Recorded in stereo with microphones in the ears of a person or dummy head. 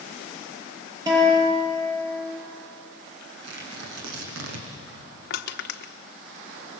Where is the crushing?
55° left (ahead or behind), 1.1 m.